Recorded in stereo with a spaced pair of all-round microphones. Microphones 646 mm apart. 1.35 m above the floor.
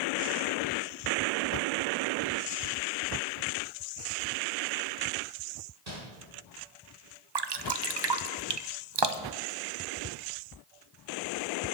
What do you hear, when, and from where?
5.9 s crumpling: 75° right (ahead or behind), 4 m
7.3 s dripping: 40° right (ahead or behind), 0.6 m